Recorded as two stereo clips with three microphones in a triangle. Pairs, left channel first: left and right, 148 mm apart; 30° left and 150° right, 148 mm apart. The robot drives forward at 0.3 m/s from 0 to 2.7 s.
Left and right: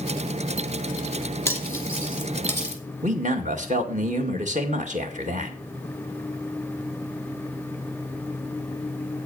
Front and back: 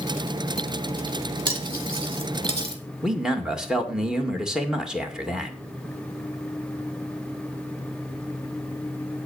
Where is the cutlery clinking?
160° left, 2.5 m; by 2.8 s 165° left, 2.5 m.